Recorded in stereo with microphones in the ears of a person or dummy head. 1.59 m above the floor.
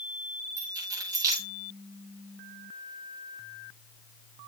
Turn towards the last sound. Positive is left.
turn(degrees=-20)  # may be behind; listen again after turning